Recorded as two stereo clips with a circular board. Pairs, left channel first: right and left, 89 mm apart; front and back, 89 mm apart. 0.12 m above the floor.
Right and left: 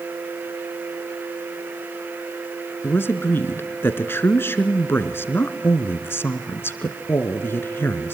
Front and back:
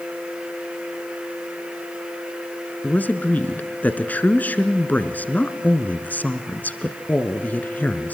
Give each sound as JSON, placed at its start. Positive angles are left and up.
{"t": 2.8, "sound": "a man speaking", "azimuth_deg": -55, "distance_m": 1.3}